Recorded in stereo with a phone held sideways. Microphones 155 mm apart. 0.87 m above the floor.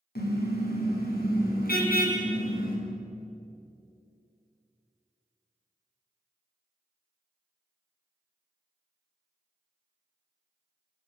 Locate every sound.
0.1 s a car horn: 90° left, 4.5 m; by 2.8 s 70° left (ahead or behind), 5.5 m